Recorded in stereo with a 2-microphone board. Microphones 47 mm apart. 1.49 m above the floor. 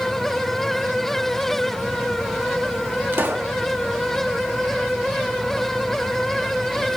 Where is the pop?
50° right (ahead or behind), 1.0 m.